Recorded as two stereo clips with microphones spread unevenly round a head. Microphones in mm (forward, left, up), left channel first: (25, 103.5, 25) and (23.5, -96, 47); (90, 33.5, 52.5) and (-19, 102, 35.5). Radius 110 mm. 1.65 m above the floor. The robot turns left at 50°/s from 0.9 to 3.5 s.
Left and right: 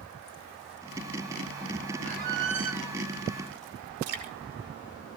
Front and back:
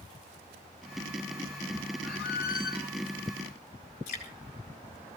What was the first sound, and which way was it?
A squeak, 40° right.